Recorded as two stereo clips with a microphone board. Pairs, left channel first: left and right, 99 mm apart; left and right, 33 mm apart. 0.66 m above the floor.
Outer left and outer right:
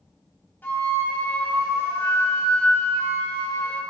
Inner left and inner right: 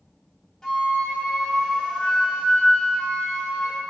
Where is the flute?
20° left (ahead or behind), 2 m.